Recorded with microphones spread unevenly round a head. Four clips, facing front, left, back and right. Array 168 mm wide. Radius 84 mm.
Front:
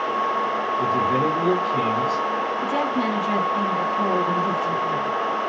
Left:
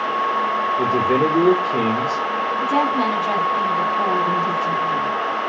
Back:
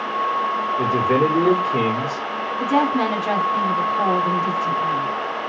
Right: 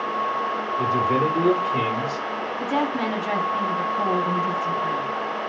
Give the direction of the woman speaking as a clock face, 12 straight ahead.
7 o'clock.